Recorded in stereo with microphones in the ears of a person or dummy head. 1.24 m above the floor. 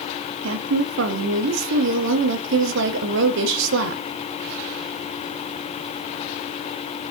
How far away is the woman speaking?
About 0.6 m.